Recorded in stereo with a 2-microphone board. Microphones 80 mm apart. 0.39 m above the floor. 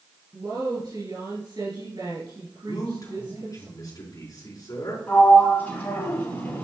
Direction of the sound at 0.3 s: 65° right (ahead or behind).